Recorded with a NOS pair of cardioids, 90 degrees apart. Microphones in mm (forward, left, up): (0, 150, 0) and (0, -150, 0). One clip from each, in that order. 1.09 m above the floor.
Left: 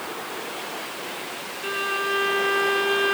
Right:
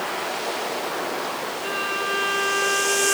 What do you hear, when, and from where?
1.6 s a violin: 5° left, 1.2 m